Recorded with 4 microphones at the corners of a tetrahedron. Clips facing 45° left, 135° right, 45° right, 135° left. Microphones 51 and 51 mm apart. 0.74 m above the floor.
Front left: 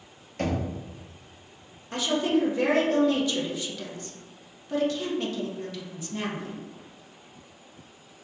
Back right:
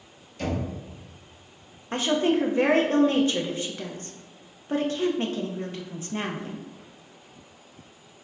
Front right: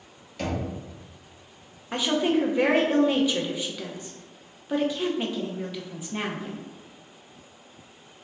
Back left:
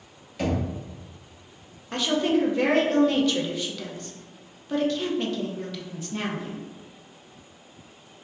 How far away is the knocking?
About 1.2 m.